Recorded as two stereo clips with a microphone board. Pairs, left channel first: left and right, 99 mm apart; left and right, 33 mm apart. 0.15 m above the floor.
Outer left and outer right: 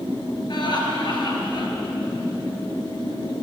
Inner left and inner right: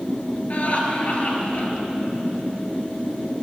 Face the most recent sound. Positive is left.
turn(degrees=50)  # may be behind; listen again after turning